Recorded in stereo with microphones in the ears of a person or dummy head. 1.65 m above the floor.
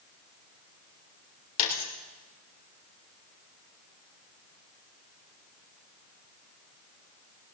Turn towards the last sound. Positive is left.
turn(degrees=45)  # may be behind; listen again after turning